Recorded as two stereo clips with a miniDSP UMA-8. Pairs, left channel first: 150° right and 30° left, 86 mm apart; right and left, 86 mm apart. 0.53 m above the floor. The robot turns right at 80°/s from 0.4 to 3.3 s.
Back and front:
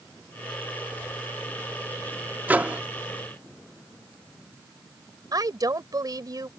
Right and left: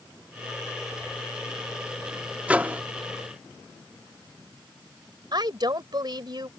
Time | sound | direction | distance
2.5 | a microwave | 45° left | ?
5.3 | a woman speaking | 65° left | ?